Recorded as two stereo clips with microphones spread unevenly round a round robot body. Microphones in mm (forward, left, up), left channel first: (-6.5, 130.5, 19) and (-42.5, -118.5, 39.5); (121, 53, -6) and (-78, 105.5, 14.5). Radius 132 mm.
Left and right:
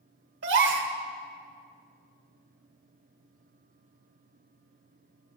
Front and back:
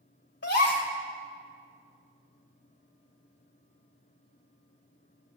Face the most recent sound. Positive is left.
turn(degrees=-55)